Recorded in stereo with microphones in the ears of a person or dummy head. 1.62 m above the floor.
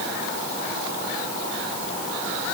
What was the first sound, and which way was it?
Only background noise.